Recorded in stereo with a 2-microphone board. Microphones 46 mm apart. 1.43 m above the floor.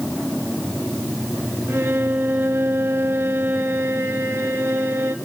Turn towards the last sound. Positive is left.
turn(degrees=-70)  # may be behind; listen again after turning